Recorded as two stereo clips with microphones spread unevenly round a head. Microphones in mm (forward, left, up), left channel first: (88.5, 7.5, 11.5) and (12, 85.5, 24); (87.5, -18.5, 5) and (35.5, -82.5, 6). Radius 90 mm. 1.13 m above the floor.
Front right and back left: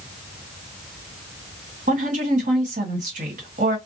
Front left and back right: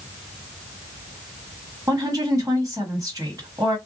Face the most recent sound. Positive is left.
turn(degrees=160)